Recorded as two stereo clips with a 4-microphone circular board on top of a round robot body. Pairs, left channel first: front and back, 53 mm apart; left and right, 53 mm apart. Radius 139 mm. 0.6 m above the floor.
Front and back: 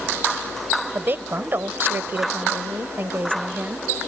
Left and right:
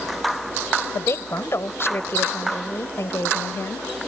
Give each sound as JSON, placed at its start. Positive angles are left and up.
{"t": 0.9, "sound": "a woman speaking", "azimuth_deg": 130}